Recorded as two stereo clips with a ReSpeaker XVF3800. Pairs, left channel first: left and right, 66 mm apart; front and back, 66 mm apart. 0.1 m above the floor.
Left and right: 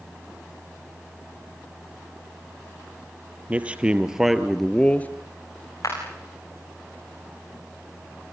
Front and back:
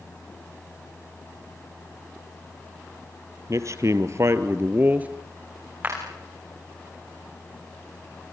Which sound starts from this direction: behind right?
A man speaking, at 3.5 s.